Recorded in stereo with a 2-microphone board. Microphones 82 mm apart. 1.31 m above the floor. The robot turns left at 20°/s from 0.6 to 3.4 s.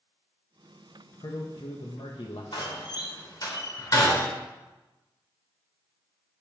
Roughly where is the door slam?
Left.